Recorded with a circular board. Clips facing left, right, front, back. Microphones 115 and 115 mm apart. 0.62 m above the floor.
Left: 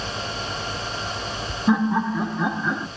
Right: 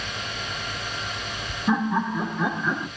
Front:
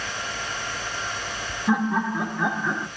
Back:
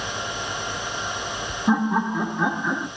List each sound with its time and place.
1.7 s laughter: 140° left, 1.5 m; by 2.9 s 95° left, 1.1 m